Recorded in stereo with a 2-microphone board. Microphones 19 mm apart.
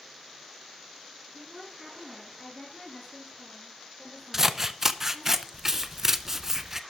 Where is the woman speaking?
5° left (ahead or behind), 3 m; by 5.3 s 55° left (ahead or behind), 3.5 m.